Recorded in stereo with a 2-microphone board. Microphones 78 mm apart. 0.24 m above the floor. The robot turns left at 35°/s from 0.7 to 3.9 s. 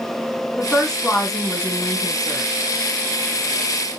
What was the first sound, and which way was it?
A woman speaking, 15° left.